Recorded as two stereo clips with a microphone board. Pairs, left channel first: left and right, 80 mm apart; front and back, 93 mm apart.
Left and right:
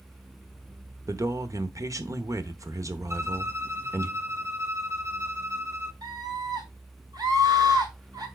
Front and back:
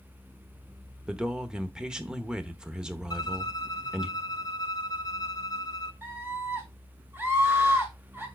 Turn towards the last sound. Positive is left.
turn(degrees=-115)